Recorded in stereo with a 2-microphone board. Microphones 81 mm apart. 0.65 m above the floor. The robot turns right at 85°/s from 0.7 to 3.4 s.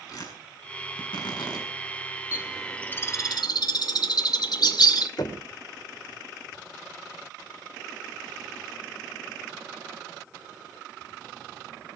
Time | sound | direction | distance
0.1 | tearing paper | 50° left (ahead or behind) | 7 m
2.3 | a bird | 25° right (ahead or behind) | 1.8 m
5.2 | knocking | 60° left (ahead or behind) | 2 m